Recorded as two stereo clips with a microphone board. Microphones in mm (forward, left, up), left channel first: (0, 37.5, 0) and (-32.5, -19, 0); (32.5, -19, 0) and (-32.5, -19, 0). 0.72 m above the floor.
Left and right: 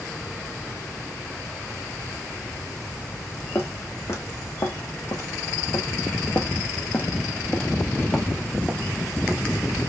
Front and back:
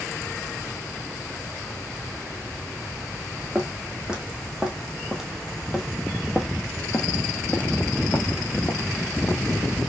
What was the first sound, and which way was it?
Footsteps, 105° left.